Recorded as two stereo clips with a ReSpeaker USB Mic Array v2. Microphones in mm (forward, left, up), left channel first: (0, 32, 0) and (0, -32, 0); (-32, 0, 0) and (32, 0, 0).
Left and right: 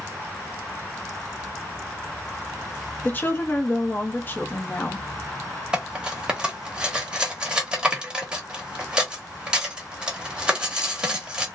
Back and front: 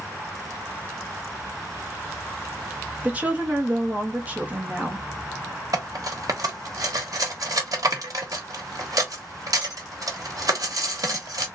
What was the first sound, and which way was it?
A woman speaking, 55° left.